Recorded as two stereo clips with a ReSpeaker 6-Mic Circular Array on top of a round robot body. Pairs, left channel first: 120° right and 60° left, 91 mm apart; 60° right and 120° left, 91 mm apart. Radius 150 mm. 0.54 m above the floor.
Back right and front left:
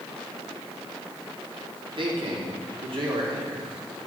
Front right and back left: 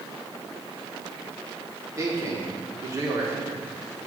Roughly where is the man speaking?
Left.